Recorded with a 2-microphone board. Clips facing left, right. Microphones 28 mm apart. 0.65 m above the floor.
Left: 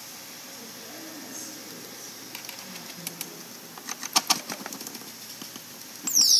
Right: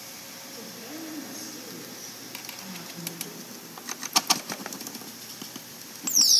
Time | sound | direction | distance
0.5 | a woman speaking | 35° right (ahead or behind) | 7 m